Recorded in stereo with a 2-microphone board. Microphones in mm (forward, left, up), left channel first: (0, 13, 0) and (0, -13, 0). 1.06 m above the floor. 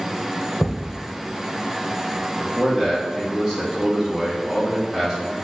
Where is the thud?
35° left (ahead or behind), 1.3 m.